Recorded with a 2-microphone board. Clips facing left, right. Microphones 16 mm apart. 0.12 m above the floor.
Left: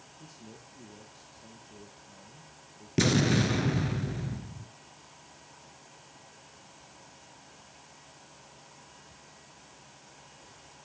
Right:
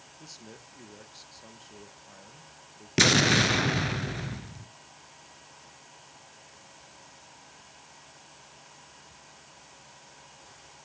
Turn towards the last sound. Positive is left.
turn(degrees=-40)  # may be behind; listen again after turning